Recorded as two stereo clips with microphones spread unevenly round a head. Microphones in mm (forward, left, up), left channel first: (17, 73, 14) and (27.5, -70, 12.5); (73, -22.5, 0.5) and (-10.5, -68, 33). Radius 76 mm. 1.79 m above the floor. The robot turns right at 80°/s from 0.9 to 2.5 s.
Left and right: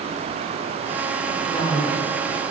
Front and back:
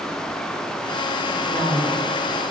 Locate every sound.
1.3 s a woman speaking: 135° left, 8 m; by 2.0 s 165° right, 8 m